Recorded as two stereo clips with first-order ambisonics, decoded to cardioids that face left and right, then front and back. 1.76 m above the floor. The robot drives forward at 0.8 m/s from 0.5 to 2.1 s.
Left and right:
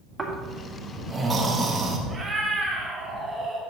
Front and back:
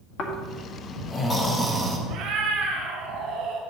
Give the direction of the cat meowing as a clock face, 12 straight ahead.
5 o'clock.